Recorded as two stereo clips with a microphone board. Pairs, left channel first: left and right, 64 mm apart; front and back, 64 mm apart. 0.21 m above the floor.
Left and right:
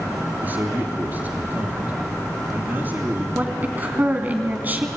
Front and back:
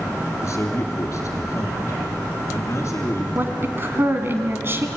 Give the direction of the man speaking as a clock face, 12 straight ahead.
1 o'clock.